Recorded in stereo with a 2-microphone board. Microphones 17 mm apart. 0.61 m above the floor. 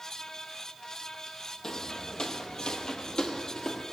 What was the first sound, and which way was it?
Footsteps, 40° left (ahead or behind).